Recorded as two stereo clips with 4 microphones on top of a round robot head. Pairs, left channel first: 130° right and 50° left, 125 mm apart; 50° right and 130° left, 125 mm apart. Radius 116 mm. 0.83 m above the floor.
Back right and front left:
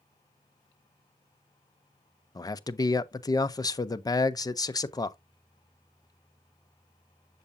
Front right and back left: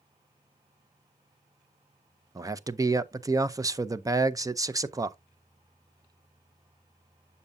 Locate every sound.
2.4 s a man speaking: straight behind, 0.7 m